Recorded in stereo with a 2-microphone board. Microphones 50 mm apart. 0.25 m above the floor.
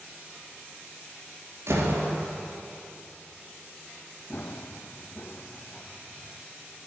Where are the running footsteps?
45° left (ahead or behind), 0.7 m; by 6.3 s 25° left (ahead or behind), 1.9 m.